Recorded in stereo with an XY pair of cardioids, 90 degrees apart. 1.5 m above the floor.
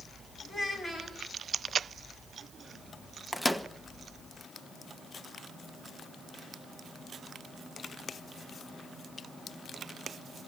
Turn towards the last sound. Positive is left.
turn(degrees=10)